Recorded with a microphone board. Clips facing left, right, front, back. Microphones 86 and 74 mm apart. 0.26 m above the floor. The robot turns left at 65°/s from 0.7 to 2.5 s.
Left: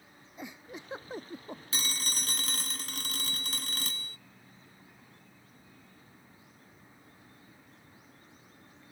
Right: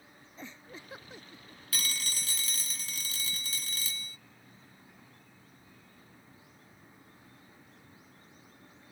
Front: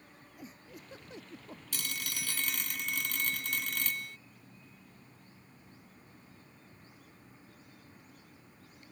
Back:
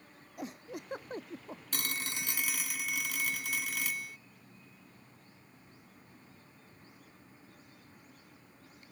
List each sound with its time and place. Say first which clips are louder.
0.4 s a giggle: left 3 dB, back 9 dB; 165° left; by 1.6 s 105° left
1.7 s a phone ringing: even, back 2 dB; 150° left; by 4.2 s 100° left